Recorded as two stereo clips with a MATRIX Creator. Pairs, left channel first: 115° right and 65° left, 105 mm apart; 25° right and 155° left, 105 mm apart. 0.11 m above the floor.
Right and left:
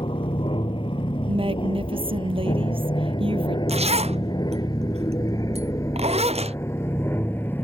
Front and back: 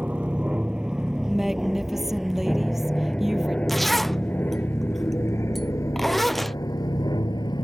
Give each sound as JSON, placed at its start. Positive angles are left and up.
{"t": 0.0, "sound": "an aircraft", "azimuth_deg": -125}
{"t": 1.3, "sound": "a woman speaking", "azimuth_deg": 70}
{"t": 3.7, "sound": "a zipper", "azimuth_deg": 65}